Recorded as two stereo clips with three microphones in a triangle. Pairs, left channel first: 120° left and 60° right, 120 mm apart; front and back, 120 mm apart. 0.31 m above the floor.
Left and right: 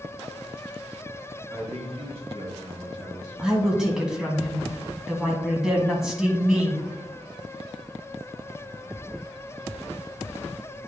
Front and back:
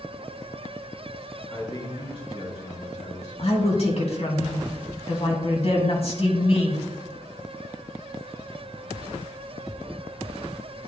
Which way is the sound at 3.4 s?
25° left.